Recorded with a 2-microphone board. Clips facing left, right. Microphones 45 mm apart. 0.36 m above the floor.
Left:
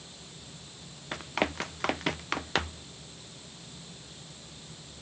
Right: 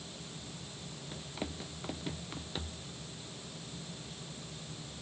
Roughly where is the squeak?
No squeak in this recording.